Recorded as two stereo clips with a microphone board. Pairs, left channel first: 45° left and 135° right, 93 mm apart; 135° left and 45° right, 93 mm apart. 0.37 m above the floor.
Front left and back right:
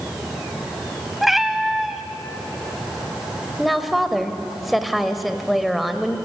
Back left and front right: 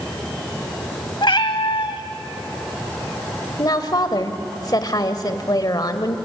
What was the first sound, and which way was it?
A cat meowing, 140° left.